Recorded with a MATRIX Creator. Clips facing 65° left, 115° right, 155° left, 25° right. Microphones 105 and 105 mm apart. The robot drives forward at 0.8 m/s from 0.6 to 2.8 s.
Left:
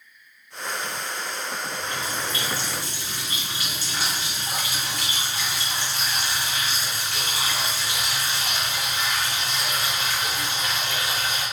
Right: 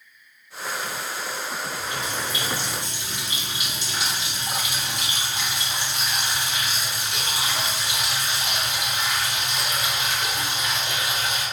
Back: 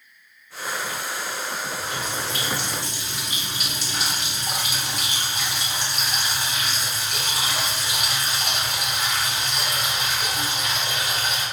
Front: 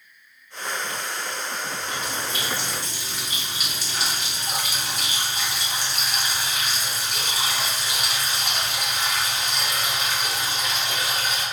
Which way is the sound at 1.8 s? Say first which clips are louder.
Even, back 1 dB; straight behind.